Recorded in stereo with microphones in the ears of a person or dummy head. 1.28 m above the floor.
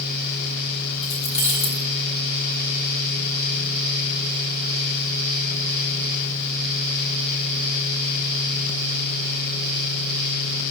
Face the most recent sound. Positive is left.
turn(degrees=30)  # may be behind; listen again after turning